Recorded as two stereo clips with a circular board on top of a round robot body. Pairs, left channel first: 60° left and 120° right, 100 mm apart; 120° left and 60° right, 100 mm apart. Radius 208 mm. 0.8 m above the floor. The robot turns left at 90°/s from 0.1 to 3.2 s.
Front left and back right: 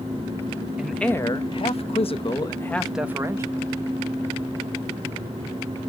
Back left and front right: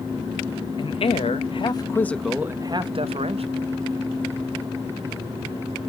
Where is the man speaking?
160° left, 1.0 m; by 3.7 s 55° right, 1.0 m.